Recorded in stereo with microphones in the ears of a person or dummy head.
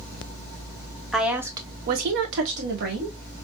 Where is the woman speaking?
Centre (ahead or behind), 0.9 m; by 3.1 s 55° right (ahead or behind), 1.1 m.